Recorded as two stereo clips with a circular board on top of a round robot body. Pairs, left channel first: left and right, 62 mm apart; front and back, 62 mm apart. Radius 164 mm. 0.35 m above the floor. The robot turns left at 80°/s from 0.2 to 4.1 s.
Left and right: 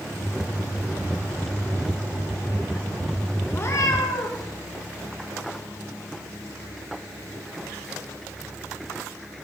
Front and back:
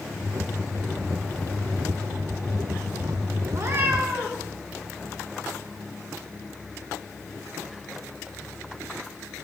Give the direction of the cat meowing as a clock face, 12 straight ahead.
7 o'clock.